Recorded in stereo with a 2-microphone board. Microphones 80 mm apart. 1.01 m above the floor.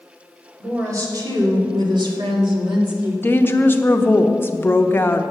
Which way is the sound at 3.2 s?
25° left (ahead or behind).